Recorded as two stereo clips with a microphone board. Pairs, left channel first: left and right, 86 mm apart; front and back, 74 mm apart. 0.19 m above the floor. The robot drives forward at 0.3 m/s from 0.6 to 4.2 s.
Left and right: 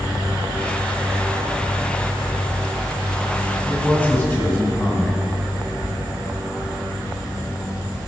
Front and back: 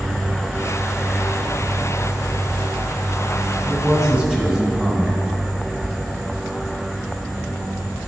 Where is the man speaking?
100° left, 1.6 m; by 5.2 s 115° left, 1.6 m.